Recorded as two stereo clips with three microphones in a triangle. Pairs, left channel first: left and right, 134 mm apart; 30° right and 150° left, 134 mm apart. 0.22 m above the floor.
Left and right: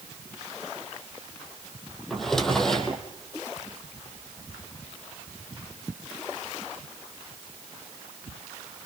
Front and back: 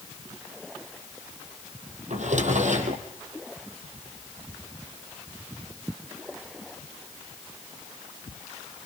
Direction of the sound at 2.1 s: 175° left.